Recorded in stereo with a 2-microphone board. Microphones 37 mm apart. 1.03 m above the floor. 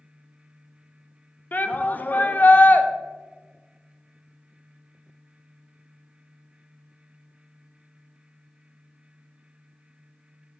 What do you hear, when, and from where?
1.5 s a shout: 50° left (ahead or behind), 0.6 m